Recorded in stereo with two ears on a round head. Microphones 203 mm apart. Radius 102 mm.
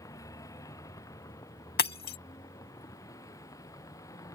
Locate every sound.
0.0 s a vehicle: 15° left (ahead or behind)
1.8 s breaking glass: 45° left (ahead or behind)